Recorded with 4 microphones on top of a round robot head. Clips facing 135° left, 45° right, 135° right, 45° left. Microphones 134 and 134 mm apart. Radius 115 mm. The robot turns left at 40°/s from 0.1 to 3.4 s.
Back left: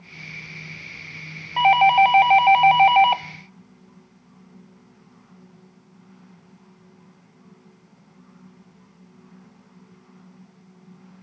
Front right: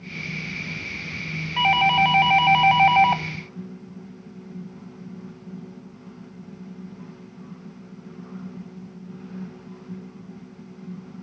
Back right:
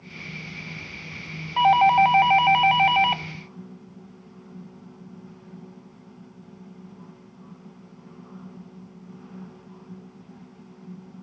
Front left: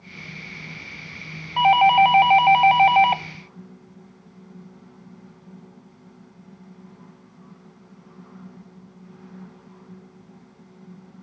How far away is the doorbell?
About 0.6 m.